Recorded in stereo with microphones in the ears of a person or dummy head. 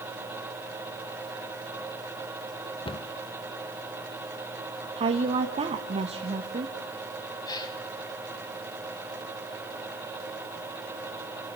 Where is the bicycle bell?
I don't hear a bicycle bell.